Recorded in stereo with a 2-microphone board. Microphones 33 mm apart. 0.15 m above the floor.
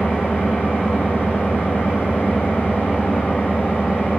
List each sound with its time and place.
0.0 s an engine running: 65° left (ahead or behind), 2.5 m